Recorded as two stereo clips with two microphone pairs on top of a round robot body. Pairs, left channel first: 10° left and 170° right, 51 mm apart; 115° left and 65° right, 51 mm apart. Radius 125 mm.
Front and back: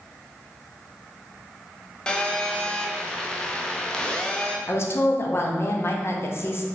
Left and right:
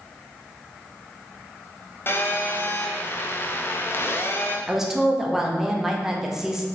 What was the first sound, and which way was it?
A phone buzzing, 85° left.